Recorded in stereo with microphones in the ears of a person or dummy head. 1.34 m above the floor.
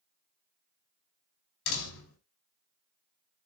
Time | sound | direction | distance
1.7 | a door slam | 75° left (ahead or behind) | 5.5 m